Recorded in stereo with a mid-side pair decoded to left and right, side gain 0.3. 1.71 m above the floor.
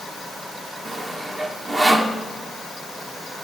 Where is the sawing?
40° right, 1.4 m.